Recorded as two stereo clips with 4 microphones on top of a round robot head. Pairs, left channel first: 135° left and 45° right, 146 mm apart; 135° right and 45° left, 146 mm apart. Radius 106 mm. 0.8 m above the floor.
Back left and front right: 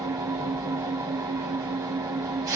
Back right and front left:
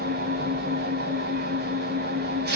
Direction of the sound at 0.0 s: 25° left.